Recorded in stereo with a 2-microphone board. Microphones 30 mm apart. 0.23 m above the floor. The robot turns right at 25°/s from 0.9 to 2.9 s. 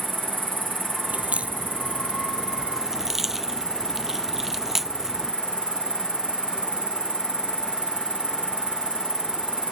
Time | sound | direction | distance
0.0 | an insect | 90° right | ?
1.1 | a crack | 50° right (ahead or behind) | ?